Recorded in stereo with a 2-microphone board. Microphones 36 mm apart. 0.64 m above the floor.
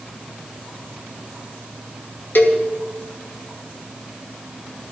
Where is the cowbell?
70° left (ahead or behind), 1.9 m.